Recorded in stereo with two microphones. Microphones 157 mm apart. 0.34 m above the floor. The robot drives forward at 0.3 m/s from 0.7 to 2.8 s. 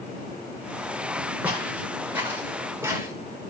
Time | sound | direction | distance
1.4 | footsteps | 10° right (ahead or behind) | 7.5 m